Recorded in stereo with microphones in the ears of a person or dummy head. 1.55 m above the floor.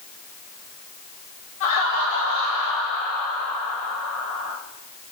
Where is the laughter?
75° left (ahead or behind), 2.5 m; by 4.5 s 55° left (ahead or behind), 5 m.